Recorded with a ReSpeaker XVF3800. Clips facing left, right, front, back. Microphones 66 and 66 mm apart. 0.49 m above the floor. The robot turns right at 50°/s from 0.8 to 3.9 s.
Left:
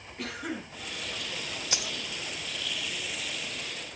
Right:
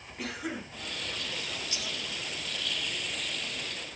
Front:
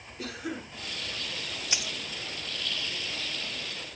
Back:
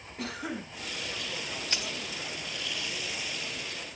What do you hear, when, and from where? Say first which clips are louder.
0.2 s a cough: even, even; 170° right, 4.5 m
1.7 s a dropped coin: left 3 dB, front 1 dB; 80° left, 0.7 m; by 1.9 s 90° left, 0.7 m